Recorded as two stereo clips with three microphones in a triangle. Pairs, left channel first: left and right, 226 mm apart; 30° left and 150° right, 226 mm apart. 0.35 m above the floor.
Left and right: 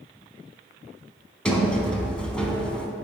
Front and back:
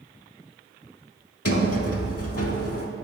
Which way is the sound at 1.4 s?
5° left.